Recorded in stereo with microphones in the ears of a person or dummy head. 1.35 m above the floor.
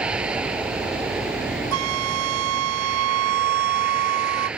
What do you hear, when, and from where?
0.0 s a vehicle: 5° right (ahead or behind)
1.7 s a flute: 80° right